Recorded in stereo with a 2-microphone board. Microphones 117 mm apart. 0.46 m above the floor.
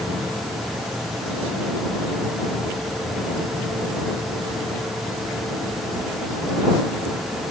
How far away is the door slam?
No door slam in this recording.